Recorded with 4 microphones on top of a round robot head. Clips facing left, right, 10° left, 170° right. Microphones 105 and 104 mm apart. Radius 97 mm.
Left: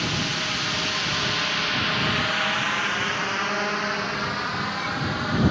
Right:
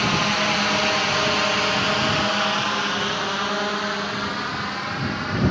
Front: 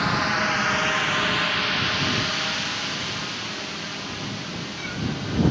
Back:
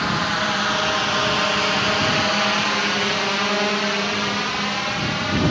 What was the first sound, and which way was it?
A drone, 80° right.